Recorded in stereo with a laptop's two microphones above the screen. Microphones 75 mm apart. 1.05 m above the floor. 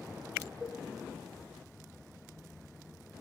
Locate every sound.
0.6 s a cowbell: 15° right (ahead or behind), 0.8 m